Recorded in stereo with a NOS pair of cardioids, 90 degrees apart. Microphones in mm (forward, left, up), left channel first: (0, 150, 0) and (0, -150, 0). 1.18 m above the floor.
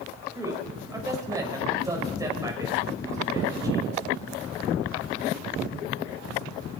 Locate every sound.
0.3 s a man speaking: 10° right, 6.5 m